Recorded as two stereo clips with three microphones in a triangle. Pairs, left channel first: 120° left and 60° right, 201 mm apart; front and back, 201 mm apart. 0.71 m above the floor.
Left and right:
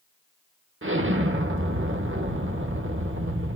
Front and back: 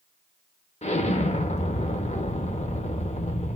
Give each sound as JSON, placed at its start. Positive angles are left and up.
{"t": 0.8, "sound": "an explosion", "azimuth_deg": -60, "distance_m": 0.9}